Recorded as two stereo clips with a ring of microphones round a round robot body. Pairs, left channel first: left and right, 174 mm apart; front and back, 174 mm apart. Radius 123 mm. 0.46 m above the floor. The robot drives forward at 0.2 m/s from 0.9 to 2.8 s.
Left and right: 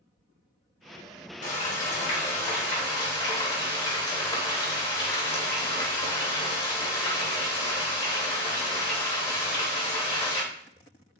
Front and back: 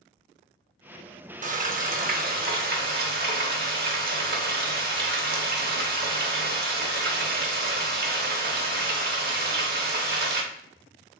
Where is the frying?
140° left, 0.6 m; by 10.4 s 155° left, 0.8 m.